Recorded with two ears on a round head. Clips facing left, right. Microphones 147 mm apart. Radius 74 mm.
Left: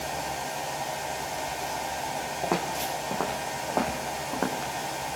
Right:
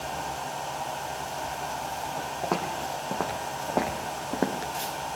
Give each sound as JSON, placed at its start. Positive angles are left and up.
{"t": 2.4, "sound": "footsteps", "side_deg": 5, "distance_m": 3.5}